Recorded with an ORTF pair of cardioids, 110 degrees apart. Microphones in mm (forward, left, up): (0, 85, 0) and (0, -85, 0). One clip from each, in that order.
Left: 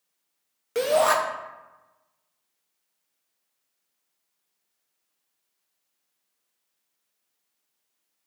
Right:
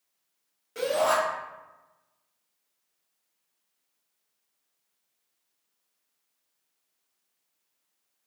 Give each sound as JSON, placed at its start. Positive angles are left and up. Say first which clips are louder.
{"t": 0.8, "sound": "a shout", "louder": "left 4 dB", "azimuth_deg": 60, "distance_m": 0.5}